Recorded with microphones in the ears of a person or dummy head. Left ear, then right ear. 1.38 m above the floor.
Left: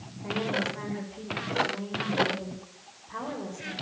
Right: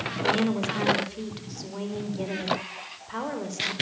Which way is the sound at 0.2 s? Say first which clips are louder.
Right 3 dB; 85° right.